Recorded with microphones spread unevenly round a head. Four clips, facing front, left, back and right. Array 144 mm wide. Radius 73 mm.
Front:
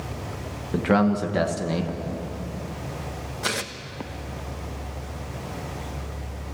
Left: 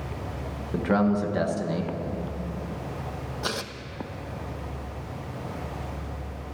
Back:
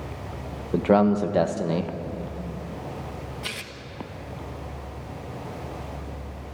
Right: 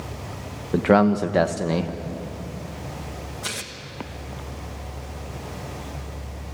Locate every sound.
0.7 s a man speaking: 125° right, 1.2 m
3.4 s tearing paper: 30° left, 1.1 m